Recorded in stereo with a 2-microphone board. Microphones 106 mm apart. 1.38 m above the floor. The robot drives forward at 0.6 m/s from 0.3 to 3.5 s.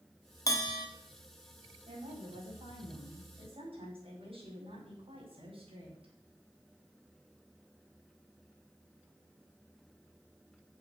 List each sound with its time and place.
0.5 s a bell: 35° left (ahead or behind), 1.4 m
1.9 s a woman speaking: 65° right (ahead or behind), 5.5 m; by 6.1 s 60° right (ahead or behind), 5.5 m